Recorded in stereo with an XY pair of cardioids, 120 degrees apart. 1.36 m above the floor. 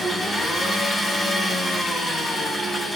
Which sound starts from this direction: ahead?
An engine running, at 0.0 s.